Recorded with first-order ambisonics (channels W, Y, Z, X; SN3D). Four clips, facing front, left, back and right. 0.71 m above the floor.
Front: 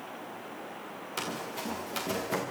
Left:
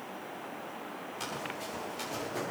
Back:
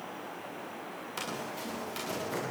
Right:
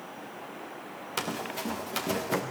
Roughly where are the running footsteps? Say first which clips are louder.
Right 6 dB, front 2 dB; right.